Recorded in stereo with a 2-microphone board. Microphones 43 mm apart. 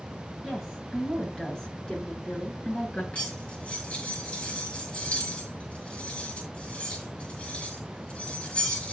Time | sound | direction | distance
0.4 | a woman speaking | centre (ahead or behind) | 7 m
3.1 | cutlery clinking | 25° left (ahead or behind) | 5 m